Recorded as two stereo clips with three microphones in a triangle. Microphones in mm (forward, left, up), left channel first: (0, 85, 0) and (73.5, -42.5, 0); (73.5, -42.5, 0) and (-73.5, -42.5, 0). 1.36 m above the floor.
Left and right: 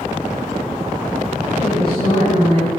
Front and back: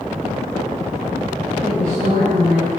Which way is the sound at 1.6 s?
165° left.